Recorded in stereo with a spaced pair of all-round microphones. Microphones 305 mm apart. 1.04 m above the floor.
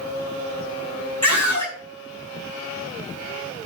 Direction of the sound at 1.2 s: 80° left.